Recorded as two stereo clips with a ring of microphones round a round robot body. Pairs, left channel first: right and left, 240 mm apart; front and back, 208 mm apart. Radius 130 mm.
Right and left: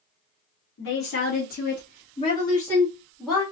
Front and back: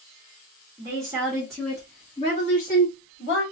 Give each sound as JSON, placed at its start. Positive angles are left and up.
{"t": 0.8, "sound": "a woman speaking", "azimuth_deg": -115, "distance_m": 1.5}